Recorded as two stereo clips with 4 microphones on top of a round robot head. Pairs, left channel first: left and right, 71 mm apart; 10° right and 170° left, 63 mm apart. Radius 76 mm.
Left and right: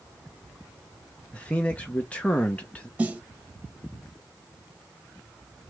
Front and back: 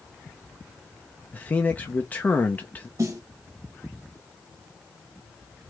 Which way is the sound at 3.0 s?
155° right.